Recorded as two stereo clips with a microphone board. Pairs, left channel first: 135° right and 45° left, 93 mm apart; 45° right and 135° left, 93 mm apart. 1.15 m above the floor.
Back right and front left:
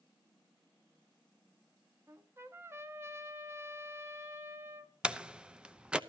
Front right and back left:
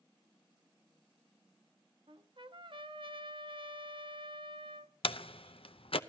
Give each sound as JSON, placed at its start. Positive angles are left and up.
{"t": 2.1, "sound": "a trumpet", "azimuth_deg": 105, "distance_m": 1.3}
{"t": 5.0, "sound": "a door slam", "azimuth_deg": -35, "distance_m": 0.7}